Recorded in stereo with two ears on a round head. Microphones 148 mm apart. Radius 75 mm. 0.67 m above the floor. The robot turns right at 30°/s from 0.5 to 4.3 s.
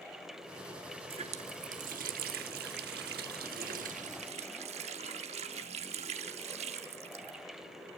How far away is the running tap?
About 1.0 m.